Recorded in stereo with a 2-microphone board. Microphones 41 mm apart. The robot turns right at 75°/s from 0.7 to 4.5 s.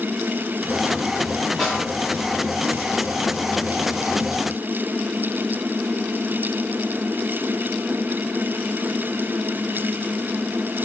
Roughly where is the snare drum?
Centre.